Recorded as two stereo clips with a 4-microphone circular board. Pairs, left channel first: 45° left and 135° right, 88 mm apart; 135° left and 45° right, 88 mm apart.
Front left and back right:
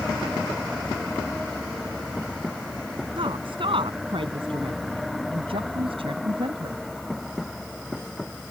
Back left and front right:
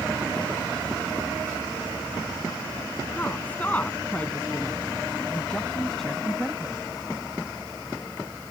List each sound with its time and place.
3.2 s a woman speaking: 155° right; by 6.8 s 130° right